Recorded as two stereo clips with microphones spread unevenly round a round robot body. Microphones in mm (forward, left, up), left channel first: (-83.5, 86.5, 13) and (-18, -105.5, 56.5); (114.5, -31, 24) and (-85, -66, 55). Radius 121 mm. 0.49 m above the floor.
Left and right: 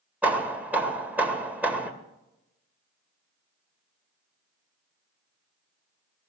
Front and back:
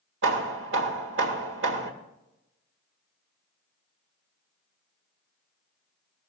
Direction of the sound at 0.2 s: 160° right.